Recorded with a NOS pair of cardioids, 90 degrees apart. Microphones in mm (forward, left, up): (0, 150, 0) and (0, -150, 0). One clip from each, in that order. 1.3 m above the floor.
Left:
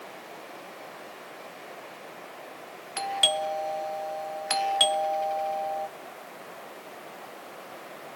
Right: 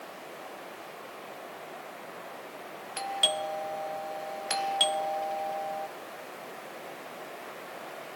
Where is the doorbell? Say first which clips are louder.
Left 3 dB; 20° left, 0.8 m.